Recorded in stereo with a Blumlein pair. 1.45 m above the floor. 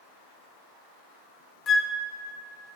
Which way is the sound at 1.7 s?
20° left.